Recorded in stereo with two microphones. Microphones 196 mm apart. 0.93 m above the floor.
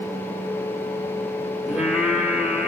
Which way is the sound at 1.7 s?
5° right (ahead or behind).